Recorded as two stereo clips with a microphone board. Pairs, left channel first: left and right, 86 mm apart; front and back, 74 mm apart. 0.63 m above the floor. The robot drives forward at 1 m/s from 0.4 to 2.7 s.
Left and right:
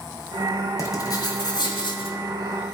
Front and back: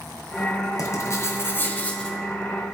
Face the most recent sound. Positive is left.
turn(degrees=105)